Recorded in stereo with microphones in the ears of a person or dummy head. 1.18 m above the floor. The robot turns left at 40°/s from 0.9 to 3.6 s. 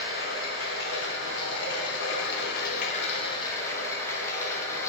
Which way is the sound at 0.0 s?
125° left.